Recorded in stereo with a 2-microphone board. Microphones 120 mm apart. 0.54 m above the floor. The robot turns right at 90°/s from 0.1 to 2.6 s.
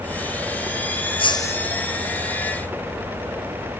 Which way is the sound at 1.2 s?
130° left.